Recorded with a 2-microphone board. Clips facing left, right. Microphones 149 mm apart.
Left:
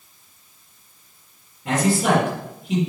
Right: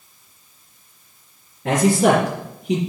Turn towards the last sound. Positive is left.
turn(degrees=-75)  # may be behind; listen again after turning